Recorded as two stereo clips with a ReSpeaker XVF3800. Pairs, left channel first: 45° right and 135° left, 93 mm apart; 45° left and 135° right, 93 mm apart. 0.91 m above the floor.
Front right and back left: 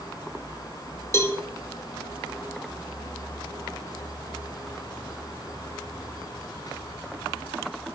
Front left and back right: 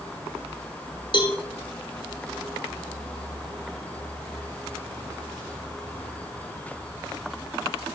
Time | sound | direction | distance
1.1 | a cowbell | 15° left | 1.0 m